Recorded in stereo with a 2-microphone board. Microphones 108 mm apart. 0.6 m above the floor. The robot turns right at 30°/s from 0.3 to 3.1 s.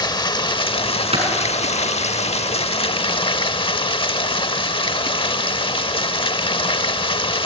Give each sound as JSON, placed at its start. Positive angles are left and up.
{"t": 0.0, "sound": "running water", "azimuth_deg": 40, "distance_m": 0.8}
{"t": 1.1, "sound": "a clap", "side_deg": -70, "distance_m": 7.0}